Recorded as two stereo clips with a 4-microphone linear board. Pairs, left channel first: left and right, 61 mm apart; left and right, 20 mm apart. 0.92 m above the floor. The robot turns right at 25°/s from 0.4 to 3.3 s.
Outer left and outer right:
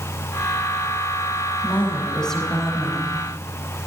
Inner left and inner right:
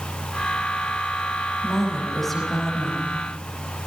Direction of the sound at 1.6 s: 155° left.